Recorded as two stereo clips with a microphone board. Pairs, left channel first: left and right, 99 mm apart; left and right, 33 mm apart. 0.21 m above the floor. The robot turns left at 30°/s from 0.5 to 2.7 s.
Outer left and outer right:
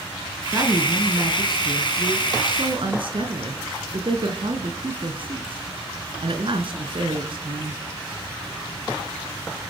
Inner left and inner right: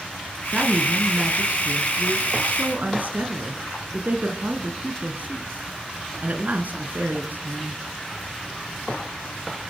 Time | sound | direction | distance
0.5 | a woman speaking | 40° right | 3 m